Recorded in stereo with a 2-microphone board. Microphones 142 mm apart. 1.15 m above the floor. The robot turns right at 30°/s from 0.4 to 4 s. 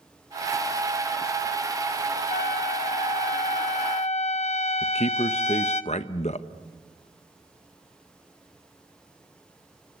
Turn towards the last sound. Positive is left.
turn(degrees=50)  # may be behind; listen again after turning